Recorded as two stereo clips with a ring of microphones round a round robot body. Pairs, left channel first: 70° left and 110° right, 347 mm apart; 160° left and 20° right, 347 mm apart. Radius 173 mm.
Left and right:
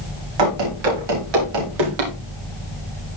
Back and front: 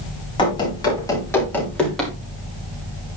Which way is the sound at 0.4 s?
125° right.